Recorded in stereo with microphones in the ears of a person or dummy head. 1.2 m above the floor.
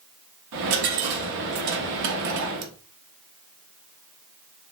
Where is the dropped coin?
55° right (ahead or behind), 0.7 m.